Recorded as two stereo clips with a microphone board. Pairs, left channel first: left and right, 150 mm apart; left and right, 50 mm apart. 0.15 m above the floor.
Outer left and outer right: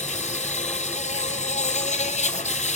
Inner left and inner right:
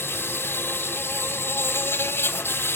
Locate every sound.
0.0 s an insect: 50° left (ahead or behind), 1.0 m